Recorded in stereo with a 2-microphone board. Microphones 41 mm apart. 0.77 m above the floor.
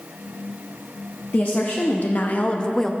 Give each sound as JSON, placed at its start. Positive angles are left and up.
{"t": 1.3, "sound": "a woman speaking", "side_deg": 45, "distance_m": 0.9}